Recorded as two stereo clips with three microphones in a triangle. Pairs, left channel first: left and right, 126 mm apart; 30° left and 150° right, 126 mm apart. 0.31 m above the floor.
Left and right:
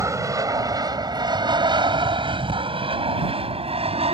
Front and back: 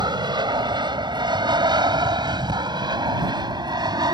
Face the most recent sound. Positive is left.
turn(degrees=-105)